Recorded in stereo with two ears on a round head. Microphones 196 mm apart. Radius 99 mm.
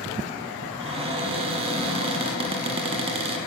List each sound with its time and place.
0.8 s a cupboard door: 25° right (ahead or behind), 1.3 m